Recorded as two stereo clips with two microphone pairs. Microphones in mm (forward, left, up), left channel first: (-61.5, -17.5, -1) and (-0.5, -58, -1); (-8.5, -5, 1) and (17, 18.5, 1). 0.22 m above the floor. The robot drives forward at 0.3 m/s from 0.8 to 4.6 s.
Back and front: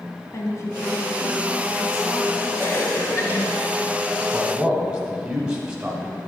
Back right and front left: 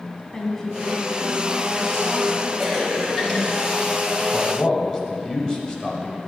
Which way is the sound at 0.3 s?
150° left.